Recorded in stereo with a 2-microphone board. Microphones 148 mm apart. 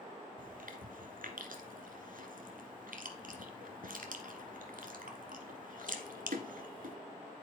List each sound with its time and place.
0.4 s chewing: 70° right (ahead or behind), 1.3 m